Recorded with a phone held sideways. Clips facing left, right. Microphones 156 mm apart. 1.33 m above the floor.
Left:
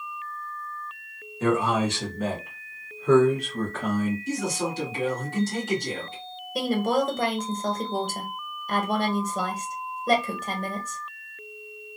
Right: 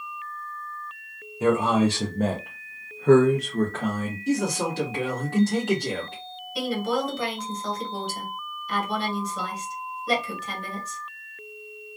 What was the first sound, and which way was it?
A man speaking, 10° right (ahead or behind).